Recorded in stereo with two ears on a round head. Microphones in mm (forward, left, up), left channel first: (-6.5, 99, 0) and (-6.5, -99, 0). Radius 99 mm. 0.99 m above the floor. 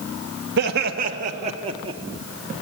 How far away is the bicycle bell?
I don't hear a bicycle bell.